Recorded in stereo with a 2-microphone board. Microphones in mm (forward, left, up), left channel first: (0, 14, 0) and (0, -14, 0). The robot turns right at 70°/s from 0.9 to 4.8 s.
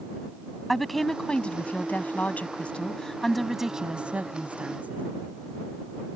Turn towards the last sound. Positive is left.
turn(degrees=-85)